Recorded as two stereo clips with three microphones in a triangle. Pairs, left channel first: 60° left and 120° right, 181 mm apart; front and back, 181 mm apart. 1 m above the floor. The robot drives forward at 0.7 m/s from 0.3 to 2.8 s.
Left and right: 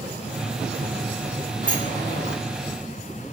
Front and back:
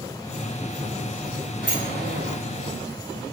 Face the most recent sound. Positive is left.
turn(degrees=-160)